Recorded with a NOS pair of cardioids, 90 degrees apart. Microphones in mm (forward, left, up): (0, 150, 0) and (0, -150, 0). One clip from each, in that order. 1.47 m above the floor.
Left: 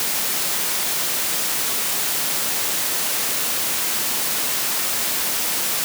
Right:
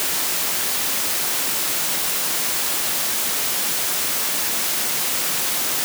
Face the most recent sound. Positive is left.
No sound to turn to.